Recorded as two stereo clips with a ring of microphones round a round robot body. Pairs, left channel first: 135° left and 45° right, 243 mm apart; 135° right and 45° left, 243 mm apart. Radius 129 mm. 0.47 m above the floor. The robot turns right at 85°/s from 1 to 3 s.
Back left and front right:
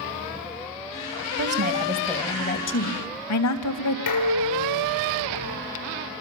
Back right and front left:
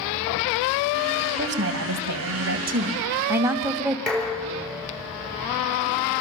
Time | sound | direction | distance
1.4 | a woman speaking | 10° right | 3.5 m
4.1 | dishes clattering | 140° left | 7 m